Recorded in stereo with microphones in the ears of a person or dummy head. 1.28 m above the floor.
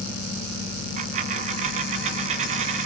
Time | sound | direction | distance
1.0 | a dropped coin | 45° right (ahead or behind) | 2 m